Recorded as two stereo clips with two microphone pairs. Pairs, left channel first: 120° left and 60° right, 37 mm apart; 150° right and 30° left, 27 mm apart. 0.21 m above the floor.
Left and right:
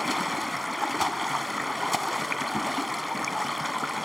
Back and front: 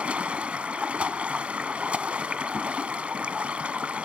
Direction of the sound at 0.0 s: 30° left.